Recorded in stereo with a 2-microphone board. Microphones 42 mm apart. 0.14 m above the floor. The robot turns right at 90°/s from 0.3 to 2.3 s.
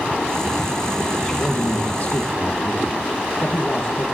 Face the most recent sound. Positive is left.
turn(degrees=110)